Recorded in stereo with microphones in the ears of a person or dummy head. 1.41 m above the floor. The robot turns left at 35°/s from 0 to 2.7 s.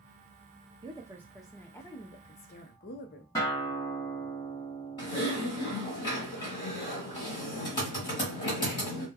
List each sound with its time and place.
0.8 s a woman speaking: 160° right, 0.5 m; by 3.2 s 135° left, 0.5 m
3.4 s a guitar: 15° left (ahead or behind), 1.1 m
5.0 s typing on a keyboard: 20° left (ahead or behind), 1.3 m